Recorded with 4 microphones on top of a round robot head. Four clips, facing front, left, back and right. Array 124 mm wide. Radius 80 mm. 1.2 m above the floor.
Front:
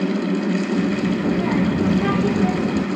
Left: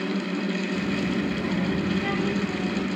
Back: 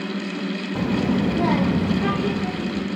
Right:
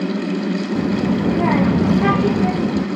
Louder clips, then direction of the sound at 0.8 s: Right 10 dB, front 1 dB; 140° right.